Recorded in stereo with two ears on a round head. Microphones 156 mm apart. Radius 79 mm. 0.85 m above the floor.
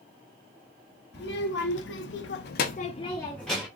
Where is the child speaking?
70° left (ahead or behind), 1.1 m; by 3.7 s 5° right (ahead or behind), 0.7 m.